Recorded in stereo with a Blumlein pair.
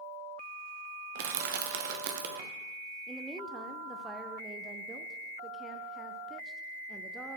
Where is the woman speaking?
10° right, 0.6 m.